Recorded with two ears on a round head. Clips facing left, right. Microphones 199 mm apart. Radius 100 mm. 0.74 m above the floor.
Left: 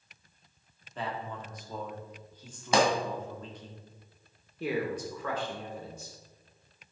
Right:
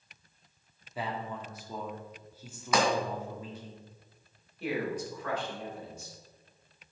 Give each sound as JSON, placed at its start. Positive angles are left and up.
{"t": 0.9, "sound": "a man speaking", "side_deg": -10, "distance_m": 1.8}
{"t": 2.7, "sound": "a pop", "side_deg": 25, "distance_m": 2.0}
{"t": 4.6, "sound": "a man speaking", "side_deg": 70, "distance_m": 2.5}